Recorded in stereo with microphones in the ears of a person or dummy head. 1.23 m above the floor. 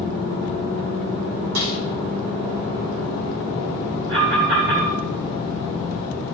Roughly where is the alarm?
Right.